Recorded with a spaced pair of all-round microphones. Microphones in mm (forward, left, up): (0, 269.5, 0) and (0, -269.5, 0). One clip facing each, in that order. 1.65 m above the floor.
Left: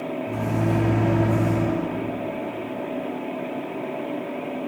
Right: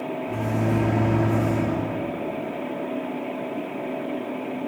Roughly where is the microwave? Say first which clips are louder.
Even; left.